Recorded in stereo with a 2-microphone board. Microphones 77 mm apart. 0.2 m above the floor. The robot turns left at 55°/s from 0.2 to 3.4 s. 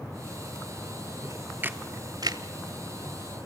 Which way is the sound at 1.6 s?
25° right (ahead or behind).